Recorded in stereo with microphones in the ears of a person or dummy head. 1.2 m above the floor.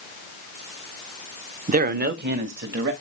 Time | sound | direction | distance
1.7 | a man speaking | 40° right (ahead or behind) | 0.5 m